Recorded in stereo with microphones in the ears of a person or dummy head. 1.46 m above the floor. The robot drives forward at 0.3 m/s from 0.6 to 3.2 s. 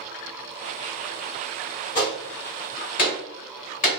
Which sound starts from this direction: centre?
A gunshot, at 1.9 s.